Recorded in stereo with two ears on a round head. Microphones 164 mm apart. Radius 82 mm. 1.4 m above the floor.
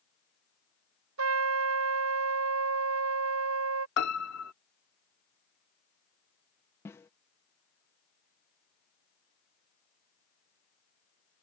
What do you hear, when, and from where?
1.2 s a trumpet: 80° right
4.0 s a piano: 65° left (ahead or behind)
6.8 s a snare drum: 15° left (ahead or behind)